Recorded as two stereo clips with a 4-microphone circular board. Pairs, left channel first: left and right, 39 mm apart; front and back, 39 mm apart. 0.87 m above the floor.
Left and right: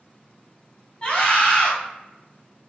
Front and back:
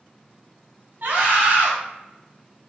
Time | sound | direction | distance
1.0 | a scream | 150° left | 1.1 m